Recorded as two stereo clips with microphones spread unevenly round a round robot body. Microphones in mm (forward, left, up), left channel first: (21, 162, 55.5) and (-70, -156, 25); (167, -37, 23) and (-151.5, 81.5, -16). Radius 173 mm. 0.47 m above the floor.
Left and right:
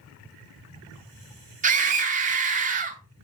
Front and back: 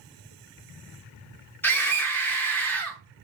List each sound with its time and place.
1.6 s a scream: 110° right, 0.9 m